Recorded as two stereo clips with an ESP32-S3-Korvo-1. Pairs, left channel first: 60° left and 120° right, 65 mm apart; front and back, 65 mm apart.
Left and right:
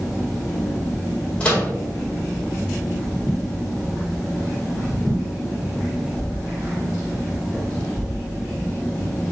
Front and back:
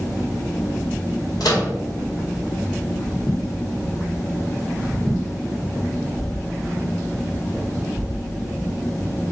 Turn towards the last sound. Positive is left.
turn(degrees=-10)